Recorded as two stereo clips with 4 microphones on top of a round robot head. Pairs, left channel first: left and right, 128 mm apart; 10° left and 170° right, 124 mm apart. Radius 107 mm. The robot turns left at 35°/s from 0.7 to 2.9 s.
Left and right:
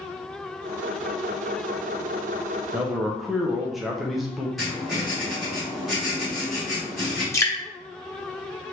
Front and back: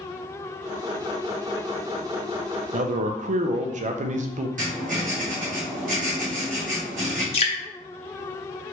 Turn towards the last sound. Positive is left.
turn(degrees=30)